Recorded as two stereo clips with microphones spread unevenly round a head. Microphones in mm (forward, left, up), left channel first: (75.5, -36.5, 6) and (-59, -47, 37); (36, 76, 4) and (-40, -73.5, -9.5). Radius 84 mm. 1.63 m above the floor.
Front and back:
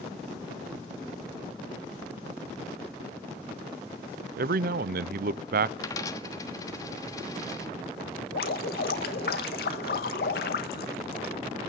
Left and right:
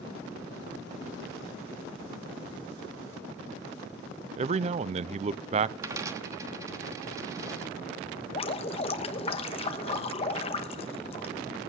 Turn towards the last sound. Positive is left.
turn(degrees=20)